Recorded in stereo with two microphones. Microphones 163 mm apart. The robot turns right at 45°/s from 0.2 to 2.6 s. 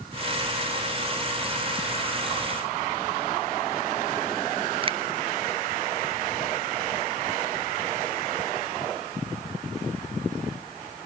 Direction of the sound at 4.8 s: 35° right (ahead or behind).